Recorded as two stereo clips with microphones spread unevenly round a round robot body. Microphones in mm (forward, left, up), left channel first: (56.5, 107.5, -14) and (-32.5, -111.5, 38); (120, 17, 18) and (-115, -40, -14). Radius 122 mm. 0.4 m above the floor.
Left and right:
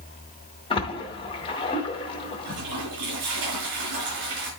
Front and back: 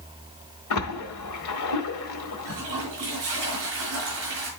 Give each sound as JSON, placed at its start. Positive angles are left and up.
{"t": 0.7, "sound": "a splash", "azimuth_deg": 10, "distance_m": 1.8}
{"t": 2.4, "sound": "a toilet flushing", "azimuth_deg": -135, "distance_m": 6.5}